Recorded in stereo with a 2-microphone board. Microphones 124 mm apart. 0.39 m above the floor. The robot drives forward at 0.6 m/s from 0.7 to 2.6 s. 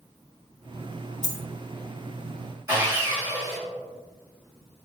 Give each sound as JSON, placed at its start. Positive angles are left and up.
{"t": 1.2, "sound": "a dropped coin", "side_deg": 70, "distance_m": 0.5}
{"t": 2.7, "sound": "sawing", "side_deg": -30, "distance_m": 1.8}